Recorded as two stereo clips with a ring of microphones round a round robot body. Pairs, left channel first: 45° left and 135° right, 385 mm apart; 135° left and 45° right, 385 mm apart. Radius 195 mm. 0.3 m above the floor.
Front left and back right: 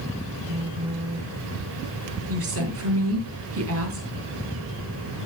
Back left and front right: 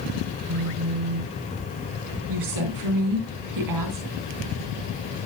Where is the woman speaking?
80° right, 3.5 m.